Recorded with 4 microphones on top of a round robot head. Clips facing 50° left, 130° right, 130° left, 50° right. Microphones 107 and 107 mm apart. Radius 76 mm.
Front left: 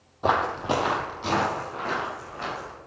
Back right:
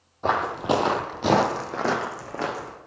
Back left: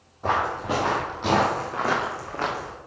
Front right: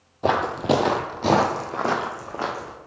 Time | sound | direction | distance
0.2 | footsteps | 30° right | 0.7 m